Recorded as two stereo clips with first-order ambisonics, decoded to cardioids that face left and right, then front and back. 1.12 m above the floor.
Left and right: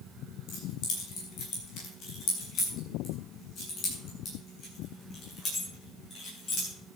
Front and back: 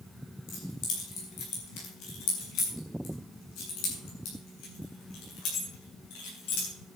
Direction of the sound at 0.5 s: 45° left.